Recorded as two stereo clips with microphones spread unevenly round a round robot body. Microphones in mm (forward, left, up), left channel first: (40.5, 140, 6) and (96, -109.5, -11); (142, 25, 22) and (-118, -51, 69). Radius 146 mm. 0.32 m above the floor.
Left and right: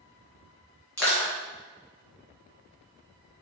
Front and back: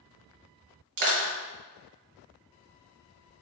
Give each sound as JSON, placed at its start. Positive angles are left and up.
{"t": 1.0, "sound": "crushing", "azimuth_deg": -170, "distance_m": 1.4}